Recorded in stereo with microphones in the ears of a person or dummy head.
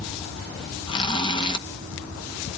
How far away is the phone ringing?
I don't hear a phone ringing.